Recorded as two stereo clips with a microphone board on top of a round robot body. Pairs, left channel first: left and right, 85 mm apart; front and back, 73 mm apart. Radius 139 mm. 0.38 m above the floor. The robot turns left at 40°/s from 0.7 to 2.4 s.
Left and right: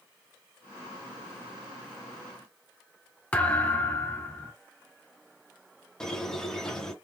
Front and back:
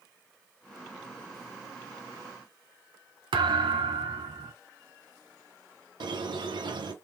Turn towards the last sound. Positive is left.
turn(degrees=175)